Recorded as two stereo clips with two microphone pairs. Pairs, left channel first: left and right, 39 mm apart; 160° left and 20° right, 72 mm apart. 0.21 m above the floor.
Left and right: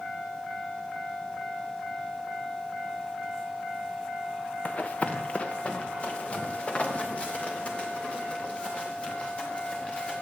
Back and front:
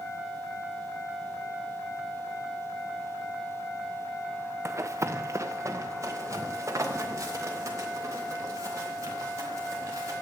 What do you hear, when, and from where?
4.7 s running footsteps: 30° left, 0.8 m